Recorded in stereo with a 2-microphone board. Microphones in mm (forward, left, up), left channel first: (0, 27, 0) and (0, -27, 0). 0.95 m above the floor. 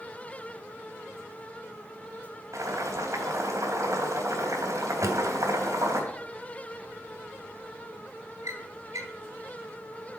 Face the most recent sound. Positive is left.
turn(degrees=-65)  # may be behind; listen again after turning